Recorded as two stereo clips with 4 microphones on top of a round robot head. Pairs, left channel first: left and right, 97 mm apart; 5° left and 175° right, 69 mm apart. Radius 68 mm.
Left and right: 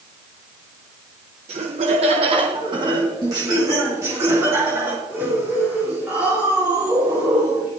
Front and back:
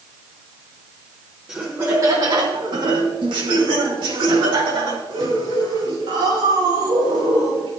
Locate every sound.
1.5 s laughter: 95° right, 0.9 m; by 7.7 s 165° right, 5 m